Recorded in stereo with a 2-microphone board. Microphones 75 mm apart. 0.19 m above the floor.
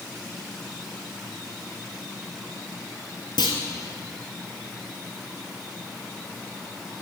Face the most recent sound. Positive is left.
turn(degrees=75)  # may be behind; listen again after turning